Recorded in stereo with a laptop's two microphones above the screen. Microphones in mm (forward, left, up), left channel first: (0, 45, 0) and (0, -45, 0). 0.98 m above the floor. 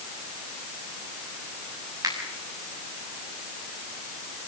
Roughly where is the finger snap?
Right.